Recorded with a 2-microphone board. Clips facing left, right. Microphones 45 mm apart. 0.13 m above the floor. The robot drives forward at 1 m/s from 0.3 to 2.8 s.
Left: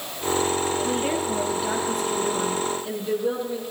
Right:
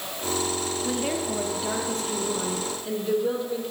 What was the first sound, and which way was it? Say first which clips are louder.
A woman speaking: left 3 dB; 5° left (ahead or behind).